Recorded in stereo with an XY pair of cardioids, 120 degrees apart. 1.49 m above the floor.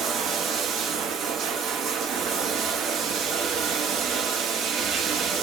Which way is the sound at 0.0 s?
60° right.